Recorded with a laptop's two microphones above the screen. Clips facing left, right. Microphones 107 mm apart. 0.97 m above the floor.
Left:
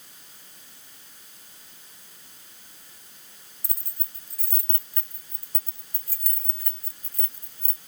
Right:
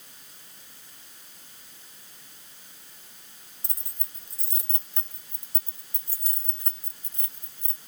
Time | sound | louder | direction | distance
3.6 | keys jangling | right 2 dB | 25° right (ahead or behind) | ?